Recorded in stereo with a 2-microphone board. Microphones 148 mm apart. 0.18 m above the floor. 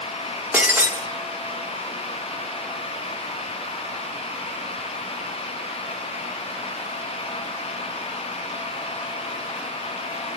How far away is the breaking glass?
About 3 m.